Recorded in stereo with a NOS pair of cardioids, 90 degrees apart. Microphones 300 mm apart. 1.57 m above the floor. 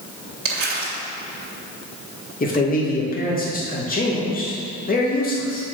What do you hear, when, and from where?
0.5 s crumpling: 50° right, 2.5 m
2.4 s a man speaking: 30° left, 2.5 m